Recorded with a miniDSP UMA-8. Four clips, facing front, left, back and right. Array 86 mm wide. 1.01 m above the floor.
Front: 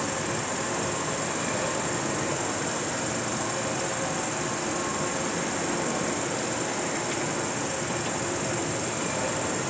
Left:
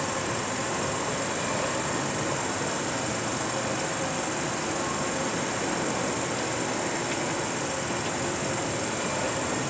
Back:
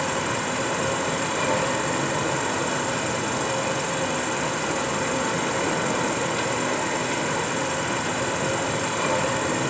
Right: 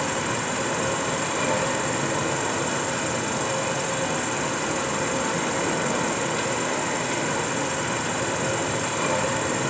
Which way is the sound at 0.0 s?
145° right.